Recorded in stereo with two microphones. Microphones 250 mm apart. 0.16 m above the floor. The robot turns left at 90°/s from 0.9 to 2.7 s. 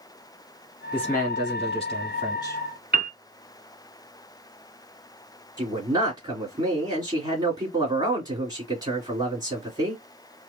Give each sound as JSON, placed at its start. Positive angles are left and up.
{"t": 0.9, "sound": "a man speaking", "side_deg": 5, "distance_m": 1.1}
{"t": 2.9, "sound": "a piano", "side_deg": -40, "distance_m": 0.6}
{"t": 5.6, "sound": "a man speaking", "side_deg": -15, "distance_m": 1.8}